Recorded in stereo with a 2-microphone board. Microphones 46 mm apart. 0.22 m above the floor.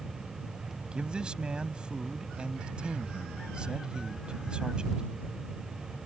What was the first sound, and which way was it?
A man speaking, 20° right (ahead or behind).